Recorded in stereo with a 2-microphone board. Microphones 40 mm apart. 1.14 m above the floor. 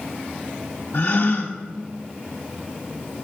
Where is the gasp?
60° left (ahead or behind), 0.7 m.